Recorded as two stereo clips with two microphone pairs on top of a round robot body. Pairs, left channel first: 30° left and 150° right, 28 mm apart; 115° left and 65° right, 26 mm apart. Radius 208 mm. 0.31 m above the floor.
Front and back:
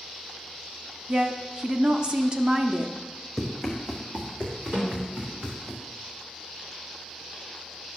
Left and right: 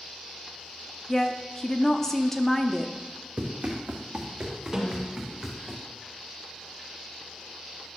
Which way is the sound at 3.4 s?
70° right.